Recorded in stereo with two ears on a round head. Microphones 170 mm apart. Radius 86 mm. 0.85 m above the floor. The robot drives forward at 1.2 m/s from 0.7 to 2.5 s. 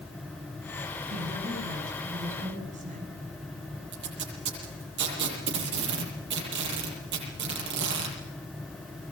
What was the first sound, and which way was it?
A woman speaking, 50° right (ahead or behind).